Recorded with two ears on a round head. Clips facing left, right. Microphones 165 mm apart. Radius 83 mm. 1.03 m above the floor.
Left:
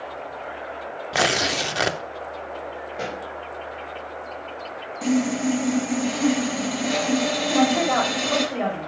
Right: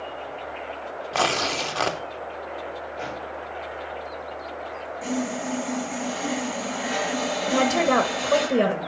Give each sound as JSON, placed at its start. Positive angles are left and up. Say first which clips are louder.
{"t": 1.1, "sound": "tearing paper", "louder": "left 2 dB", "side_deg": 15, "distance_m": 0.6}
{"t": 2.9, "sound": "a pop", "louder": "left 2 dB", "side_deg": 50, "distance_m": 2.5}
{"t": 5.0, "sound": "sawing", "louder": "left 7 dB", "side_deg": 55, "distance_m": 4.5}
{"t": 7.5, "sound": "a woman speaking", "louder": "even", "side_deg": -60, "distance_m": 1.5}